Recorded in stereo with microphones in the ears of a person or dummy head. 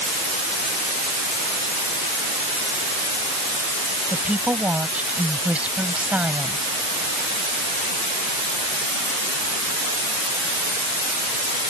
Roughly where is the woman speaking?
Centre.